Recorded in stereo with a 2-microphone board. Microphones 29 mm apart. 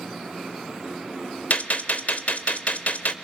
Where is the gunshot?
75° left (ahead or behind), 1.0 m.